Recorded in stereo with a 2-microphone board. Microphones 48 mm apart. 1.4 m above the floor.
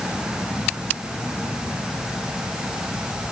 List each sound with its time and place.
Only background noise.